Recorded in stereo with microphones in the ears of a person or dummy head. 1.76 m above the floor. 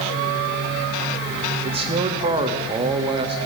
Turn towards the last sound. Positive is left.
turn(degrees=-25)  # may be behind; listen again after turning